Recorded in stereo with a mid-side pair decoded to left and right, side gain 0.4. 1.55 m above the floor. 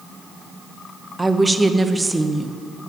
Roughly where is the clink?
No clink in this recording.